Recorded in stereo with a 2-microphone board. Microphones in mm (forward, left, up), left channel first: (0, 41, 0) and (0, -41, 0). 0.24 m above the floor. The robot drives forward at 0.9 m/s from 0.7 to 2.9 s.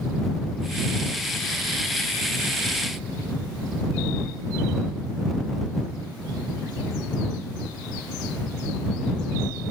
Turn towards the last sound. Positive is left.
No sound to turn to.